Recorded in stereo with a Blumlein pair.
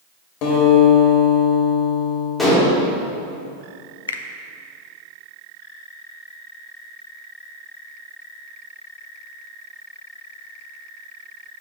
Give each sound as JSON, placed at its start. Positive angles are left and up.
{"t": 0.4, "sound": "a guitar", "azimuth_deg": 40, "distance_m": 2.5}
{"t": 2.4, "sound": "dishes clattering", "azimuth_deg": 10, "distance_m": 2.5}
{"t": 4.1, "sound": "a finger snap", "azimuth_deg": 65, "distance_m": 0.6}